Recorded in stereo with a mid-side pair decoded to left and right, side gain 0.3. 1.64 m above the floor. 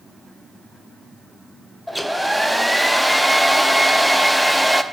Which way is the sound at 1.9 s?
5° left.